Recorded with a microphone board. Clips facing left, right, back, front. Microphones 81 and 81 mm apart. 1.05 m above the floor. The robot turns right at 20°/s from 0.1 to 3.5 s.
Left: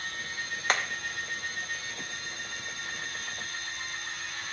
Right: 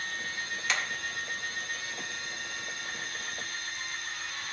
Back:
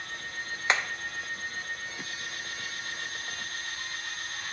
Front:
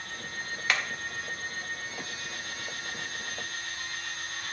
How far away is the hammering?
About 0.5 m.